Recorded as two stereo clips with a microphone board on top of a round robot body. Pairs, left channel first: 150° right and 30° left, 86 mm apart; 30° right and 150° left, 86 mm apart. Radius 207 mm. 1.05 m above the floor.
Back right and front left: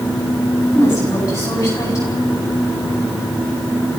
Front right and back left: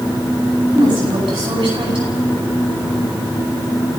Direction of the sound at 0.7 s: 155° left.